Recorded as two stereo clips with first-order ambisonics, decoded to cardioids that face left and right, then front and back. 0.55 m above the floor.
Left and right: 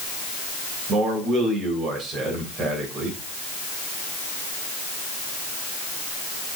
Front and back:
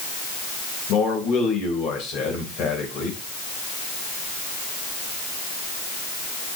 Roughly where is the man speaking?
Ahead right.